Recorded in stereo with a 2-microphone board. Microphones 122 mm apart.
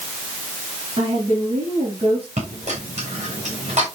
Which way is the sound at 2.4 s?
65° right (ahead or behind).